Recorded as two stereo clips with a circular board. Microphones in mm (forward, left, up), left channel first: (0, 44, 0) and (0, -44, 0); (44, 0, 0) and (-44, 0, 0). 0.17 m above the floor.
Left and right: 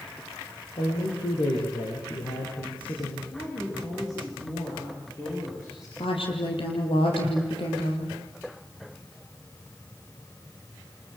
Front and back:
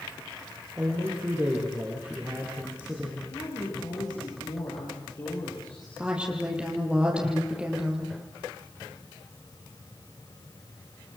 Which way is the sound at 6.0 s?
100° left.